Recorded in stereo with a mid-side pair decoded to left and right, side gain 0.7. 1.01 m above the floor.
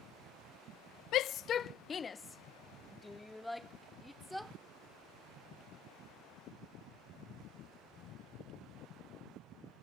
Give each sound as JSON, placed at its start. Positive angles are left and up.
{"t": 1.1, "sound": "a shout", "azimuth_deg": 55}